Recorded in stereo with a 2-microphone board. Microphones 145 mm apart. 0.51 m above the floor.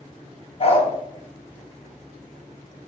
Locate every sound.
0.6 s a dog barking: 45° left (ahead or behind), 0.6 m